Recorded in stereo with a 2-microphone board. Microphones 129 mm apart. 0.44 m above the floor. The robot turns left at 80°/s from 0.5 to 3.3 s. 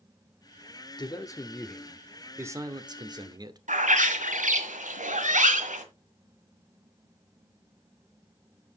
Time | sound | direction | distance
1.0 | a man speaking | 75° left | 0.9 m
3.7 | a bird | 80° right | 1.4 m